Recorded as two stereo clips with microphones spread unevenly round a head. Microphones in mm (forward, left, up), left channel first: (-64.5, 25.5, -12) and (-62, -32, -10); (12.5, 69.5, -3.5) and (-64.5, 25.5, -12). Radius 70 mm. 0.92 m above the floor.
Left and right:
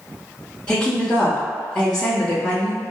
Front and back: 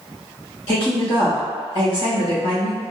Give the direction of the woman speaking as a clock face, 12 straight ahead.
11 o'clock.